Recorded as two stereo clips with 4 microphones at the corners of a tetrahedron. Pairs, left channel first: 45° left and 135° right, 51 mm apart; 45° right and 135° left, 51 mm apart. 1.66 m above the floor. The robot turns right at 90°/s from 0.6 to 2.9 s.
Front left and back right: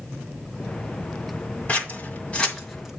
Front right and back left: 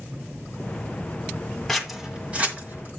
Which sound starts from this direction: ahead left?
Scissors, at 1.7 s.